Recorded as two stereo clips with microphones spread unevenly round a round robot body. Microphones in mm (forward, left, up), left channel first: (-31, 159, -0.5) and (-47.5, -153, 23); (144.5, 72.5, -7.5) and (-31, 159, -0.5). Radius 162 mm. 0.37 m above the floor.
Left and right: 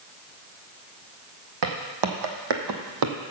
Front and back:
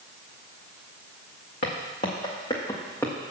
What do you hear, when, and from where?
1.6 s footsteps: 85° right, 1.6 m; by 3.2 s 115° right, 1.2 m